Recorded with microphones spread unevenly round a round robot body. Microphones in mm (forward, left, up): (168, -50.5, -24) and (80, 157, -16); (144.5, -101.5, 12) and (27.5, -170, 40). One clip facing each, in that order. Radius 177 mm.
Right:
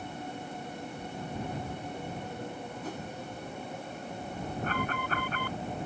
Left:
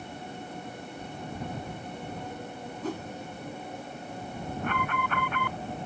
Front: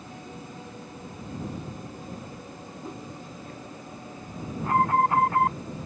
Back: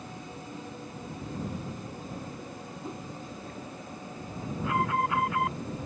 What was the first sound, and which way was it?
A whoosh, 125° left.